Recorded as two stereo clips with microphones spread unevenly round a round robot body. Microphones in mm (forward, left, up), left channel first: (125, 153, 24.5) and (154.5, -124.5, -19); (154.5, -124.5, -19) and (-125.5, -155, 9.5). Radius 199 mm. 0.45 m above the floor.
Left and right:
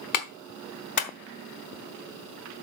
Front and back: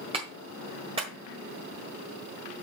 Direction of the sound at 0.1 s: 110° left.